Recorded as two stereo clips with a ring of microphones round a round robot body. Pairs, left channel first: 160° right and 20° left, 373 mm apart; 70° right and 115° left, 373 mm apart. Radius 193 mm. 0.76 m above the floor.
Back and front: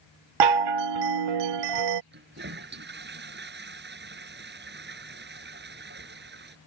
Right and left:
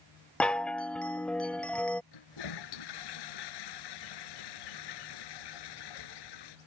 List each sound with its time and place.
0.4 s a chime: 20° left
2.1 s a toilet flushing: 40° right